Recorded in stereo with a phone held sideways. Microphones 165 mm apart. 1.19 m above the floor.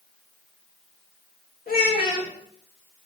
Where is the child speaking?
60° left (ahead or behind), 2 m.